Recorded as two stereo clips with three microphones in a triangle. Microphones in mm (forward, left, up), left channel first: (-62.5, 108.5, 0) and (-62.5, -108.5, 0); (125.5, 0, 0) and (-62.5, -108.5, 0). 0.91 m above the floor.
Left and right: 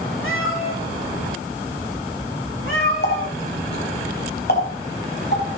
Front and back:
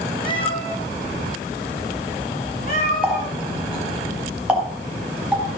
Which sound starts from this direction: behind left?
A running tap, at 3.0 s.